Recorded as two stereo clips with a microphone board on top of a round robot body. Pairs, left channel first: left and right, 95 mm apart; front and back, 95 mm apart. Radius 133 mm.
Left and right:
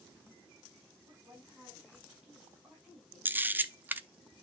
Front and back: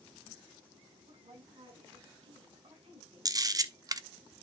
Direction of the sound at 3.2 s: 155° right.